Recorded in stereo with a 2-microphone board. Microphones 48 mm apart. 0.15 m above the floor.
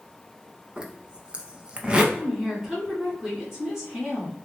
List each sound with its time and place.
0.8 s a zipper: 20° right (ahead or behind), 0.5 m
2.1 s a woman speaking: 10° right (ahead or behind), 1.6 m